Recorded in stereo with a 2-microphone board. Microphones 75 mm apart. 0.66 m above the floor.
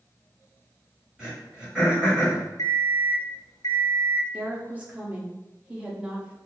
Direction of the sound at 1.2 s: 15° right (ahead or behind).